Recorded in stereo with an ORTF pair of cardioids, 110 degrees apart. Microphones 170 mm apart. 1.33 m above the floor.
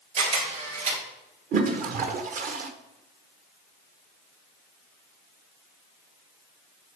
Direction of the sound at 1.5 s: 45° right.